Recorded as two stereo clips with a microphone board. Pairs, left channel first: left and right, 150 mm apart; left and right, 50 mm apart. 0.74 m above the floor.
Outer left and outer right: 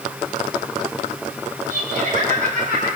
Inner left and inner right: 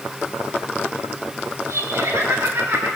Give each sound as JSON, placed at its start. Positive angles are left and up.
{"t": 1.7, "sound": "laughter", "side_deg": -80, "distance_m": 7.5}